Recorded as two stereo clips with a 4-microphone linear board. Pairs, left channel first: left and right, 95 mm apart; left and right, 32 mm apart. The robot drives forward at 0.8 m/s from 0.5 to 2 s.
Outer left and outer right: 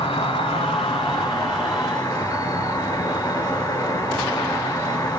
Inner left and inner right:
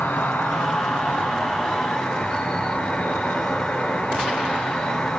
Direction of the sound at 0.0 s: 75° left (ahead or behind).